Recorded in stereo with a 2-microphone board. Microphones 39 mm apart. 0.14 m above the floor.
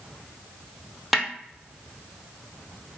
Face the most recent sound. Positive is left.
turn(degrees=-5)  # may be behind; listen again after turning